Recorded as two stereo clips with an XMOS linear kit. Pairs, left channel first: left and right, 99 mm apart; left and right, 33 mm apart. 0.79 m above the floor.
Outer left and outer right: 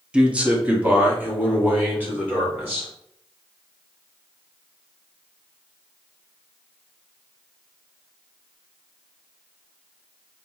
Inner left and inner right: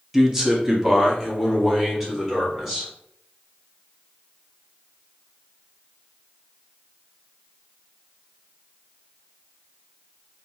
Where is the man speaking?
10° right (ahead or behind), 0.6 m; by 2.9 s 20° right (ahead or behind), 2 m.